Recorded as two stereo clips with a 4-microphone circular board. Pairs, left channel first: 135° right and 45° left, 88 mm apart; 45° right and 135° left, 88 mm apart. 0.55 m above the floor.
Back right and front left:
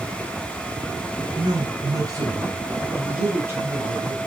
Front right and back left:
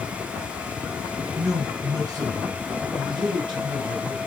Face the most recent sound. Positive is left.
turn(degrees=110)